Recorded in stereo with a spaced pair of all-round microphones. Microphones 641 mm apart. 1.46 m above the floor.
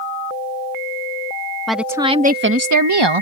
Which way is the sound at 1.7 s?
Centre (ahead or behind).